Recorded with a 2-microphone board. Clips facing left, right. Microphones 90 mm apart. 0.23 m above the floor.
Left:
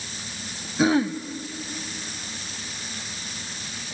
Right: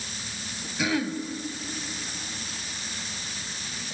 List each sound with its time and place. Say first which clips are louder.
0.8 s throat clearing: left 7 dB; 35° left (ahead or behind), 0.6 m